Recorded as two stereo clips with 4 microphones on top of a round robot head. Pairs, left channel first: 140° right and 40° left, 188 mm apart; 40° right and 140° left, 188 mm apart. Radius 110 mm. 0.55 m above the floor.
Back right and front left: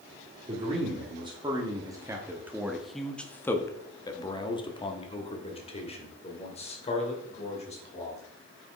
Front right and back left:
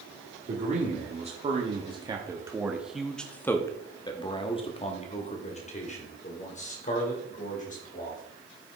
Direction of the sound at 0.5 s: 95° left.